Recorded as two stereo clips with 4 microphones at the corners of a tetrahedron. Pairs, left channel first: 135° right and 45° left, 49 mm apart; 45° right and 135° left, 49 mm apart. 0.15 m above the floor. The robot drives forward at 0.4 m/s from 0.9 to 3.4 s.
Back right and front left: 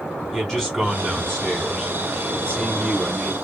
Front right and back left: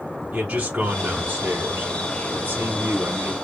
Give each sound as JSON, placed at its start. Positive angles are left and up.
{"t": 0.3, "sound": "a man speaking", "azimuth_deg": 150, "distance_m": 1.1}